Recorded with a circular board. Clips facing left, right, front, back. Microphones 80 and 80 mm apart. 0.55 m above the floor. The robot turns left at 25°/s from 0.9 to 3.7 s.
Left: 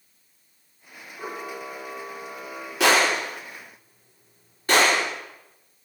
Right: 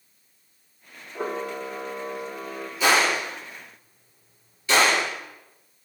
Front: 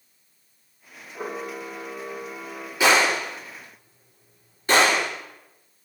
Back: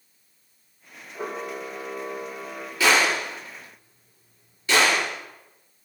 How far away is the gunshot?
About 6 m.